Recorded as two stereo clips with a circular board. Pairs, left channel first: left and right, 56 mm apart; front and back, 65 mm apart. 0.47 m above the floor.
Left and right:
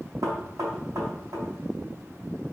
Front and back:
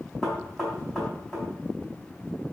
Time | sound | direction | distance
0.2 | knocking | 95° right | 3.5 m